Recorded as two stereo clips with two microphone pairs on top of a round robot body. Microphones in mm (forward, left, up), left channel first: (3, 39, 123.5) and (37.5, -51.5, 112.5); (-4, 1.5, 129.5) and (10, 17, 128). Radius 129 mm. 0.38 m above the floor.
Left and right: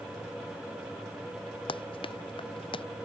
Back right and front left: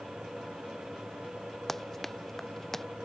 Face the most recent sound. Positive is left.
turn(degrees=145)